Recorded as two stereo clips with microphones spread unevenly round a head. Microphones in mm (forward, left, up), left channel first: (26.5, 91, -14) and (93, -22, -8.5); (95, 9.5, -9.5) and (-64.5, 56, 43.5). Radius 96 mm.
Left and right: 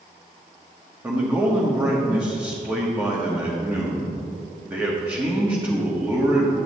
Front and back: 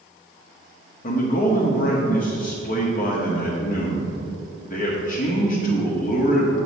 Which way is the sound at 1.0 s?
15° left.